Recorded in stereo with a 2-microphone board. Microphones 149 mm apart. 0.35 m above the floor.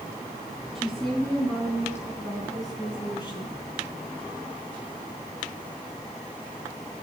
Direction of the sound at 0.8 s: Centre (ahead or behind).